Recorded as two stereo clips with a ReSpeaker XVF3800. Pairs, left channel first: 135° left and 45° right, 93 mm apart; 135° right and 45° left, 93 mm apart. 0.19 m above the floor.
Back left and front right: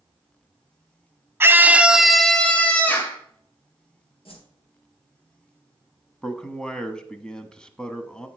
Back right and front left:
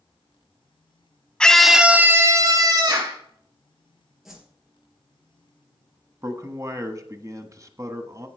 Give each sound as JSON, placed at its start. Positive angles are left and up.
{"t": 1.4, "sound": "a scream", "azimuth_deg": -65, "distance_m": 1.1}
{"t": 4.2, "sound": "a whoosh", "azimuth_deg": 130, "distance_m": 2.5}
{"t": 6.2, "sound": "a man speaking", "azimuth_deg": 60, "distance_m": 1.1}